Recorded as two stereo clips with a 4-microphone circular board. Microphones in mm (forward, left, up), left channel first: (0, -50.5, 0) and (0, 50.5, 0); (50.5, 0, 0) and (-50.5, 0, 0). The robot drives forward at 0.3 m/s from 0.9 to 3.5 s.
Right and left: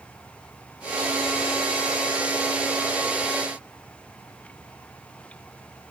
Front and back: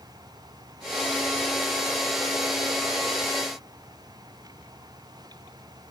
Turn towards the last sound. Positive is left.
No sound to turn to.